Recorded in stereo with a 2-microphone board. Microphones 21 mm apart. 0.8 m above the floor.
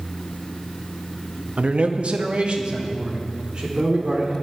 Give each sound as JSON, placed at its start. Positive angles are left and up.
{"t": 1.6, "sound": "a man speaking", "side_deg": -55, "distance_m": 0.5}